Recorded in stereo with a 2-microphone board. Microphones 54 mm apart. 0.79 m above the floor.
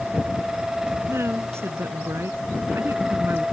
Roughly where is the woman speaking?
Right.